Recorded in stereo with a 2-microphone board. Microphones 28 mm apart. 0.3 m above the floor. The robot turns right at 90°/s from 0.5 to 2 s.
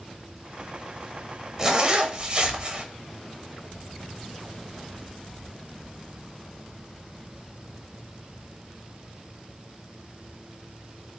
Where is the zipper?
145° right, 0.6 m; by 2.8 s 110° right, 0.6 m.